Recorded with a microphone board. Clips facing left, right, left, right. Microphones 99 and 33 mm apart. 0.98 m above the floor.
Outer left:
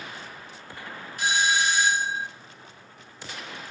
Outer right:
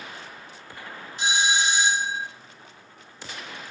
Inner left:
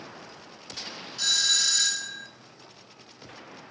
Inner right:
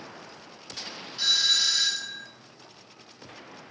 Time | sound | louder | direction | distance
1.2 | a doorbell | even, inner right 2 dB | 25° right (ahead or behind) | 1.2 m